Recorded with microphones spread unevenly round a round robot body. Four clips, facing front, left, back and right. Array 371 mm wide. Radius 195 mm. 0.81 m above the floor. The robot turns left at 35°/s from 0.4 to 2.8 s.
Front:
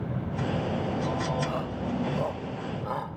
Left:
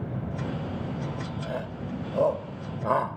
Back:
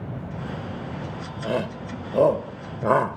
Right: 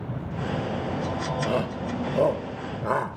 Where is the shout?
135° right; by 3.2 s straight behind.